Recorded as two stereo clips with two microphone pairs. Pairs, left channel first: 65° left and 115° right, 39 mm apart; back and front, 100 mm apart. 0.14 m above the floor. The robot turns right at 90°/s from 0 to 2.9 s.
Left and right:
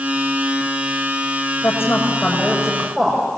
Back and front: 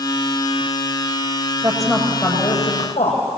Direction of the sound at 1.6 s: 45° left.